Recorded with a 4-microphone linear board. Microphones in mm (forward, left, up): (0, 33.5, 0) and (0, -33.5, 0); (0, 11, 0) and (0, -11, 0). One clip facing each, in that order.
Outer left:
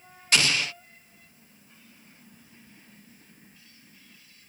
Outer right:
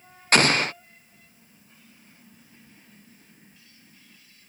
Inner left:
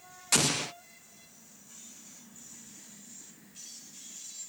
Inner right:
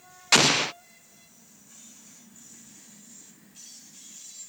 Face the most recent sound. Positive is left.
turn(degrees=-40)  # may be behind; listen again after turning